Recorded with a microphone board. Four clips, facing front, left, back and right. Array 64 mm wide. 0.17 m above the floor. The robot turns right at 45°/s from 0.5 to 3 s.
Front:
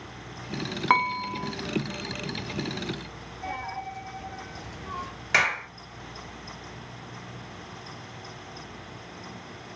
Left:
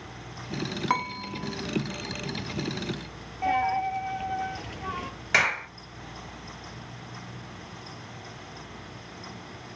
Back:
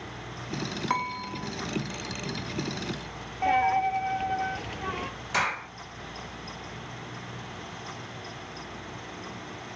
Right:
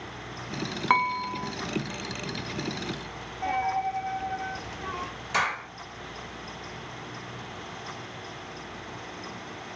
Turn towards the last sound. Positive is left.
turn(degrees=45)